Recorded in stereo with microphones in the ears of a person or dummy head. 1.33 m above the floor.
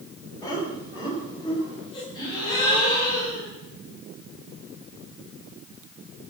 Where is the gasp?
25° left (ahead or behind), 5.5 m.